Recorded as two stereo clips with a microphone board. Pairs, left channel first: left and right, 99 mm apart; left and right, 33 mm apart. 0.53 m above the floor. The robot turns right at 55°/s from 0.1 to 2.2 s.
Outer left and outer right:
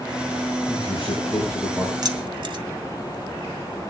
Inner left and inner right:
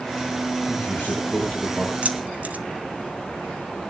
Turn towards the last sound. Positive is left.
turn(degrees=-50)  # may be behind; listen again after turning